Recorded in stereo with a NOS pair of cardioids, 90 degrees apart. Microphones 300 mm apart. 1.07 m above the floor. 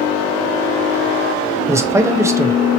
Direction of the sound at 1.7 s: 10° right.